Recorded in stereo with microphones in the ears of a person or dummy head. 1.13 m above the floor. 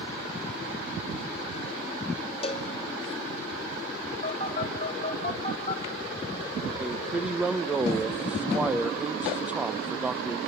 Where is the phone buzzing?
35° left (ahead or behind), 2.5 m.